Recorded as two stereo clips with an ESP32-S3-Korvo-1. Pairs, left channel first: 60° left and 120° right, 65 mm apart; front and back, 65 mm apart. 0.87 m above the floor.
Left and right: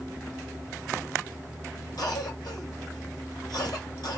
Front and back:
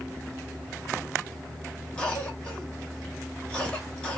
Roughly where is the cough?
Left.